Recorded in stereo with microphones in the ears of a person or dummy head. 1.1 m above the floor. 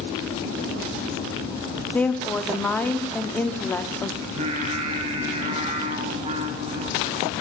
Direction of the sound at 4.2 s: 35° right (ahead or behind).